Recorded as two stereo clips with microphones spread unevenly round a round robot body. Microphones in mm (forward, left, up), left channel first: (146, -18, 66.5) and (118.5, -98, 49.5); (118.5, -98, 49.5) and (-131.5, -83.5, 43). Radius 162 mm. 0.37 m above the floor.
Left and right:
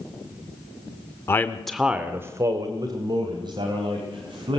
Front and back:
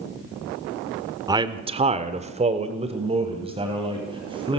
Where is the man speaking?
120° left, 1.2 m; by 4.6 s 115° right, 4 m.